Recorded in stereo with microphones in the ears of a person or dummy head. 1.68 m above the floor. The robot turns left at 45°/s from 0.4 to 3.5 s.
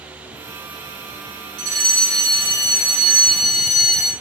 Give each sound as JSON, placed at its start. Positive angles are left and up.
{"t": 1.6, "sound": "a fire alarm", "azimuth_deg": -85, "distance_m": 3.5}